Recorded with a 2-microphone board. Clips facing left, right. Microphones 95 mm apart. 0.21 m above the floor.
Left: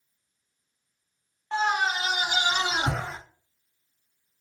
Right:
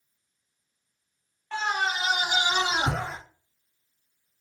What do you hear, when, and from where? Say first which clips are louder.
1.5 s a scream: left 3 dB; 20° left (ahead or behind), 1.3 m; by 3.2 s 35° right (ahead or behind), 2 m